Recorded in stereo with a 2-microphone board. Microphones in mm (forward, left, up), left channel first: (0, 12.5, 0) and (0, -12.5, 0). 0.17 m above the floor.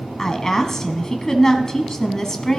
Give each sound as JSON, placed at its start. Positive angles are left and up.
{"t": 0.2, "sound": "a woman speaking", "side_deg": 25, "distance_m": 1.2}